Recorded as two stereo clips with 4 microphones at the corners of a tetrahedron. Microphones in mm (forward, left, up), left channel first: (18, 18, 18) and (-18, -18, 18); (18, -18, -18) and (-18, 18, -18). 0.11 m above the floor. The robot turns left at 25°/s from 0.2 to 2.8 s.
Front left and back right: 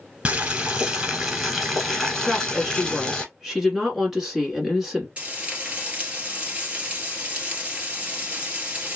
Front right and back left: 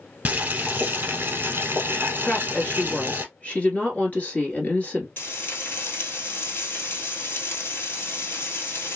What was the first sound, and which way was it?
Boiling, 170° left.